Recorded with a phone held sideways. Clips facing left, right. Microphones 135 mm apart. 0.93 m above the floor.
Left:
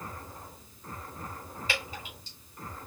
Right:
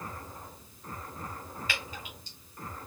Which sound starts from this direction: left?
Dripping, at 1.7 s.